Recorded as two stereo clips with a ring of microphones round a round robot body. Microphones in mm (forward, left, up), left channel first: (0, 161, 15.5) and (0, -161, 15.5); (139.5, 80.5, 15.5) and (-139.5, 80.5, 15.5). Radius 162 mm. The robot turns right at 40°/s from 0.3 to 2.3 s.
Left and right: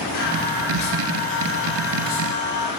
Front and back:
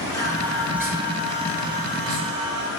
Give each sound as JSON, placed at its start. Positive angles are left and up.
{"t": 0.1, "sound": "singing", "azimuth_deg": 75, "distance_m": 5.5}